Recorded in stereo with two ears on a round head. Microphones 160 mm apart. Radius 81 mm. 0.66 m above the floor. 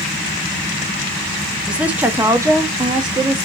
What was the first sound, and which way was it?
A woman speaking, 5° right (ahead or behind).